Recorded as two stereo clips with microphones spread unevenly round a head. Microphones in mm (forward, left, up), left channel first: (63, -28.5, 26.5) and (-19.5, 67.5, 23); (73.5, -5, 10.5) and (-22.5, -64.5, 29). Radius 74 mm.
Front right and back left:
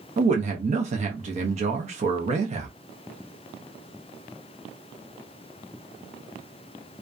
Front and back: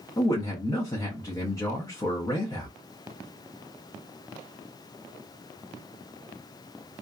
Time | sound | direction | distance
0.2 | a man speaking | 95° left | 0.6 m